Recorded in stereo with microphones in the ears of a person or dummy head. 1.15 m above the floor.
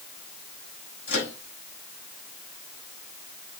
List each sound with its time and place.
1.1 s a microwave: 65° left (ahead or behind), 5.5 m